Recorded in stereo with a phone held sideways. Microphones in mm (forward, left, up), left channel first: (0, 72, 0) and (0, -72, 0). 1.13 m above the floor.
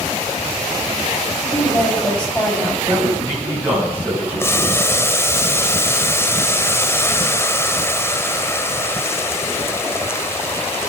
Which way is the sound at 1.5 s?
5° left (ahead or behind).